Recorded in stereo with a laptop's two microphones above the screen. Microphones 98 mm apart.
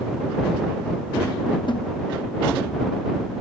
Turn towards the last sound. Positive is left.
turn(degrees=55)  # may be behind; listen again after turning